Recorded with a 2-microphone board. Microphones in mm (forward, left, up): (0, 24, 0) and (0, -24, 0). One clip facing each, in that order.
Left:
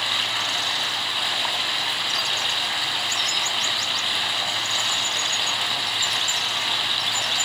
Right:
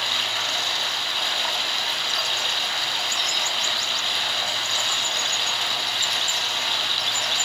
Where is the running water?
10° left (ahead or behind), 1.1 m.